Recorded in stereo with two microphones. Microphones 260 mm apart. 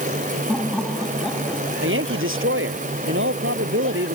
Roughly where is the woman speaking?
Right.